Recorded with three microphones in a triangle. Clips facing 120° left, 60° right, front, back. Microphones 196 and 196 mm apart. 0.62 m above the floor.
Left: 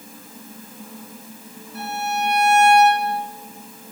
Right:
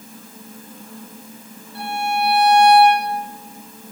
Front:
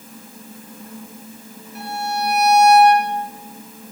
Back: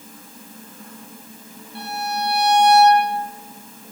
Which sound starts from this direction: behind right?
A violin, at 1.8 s.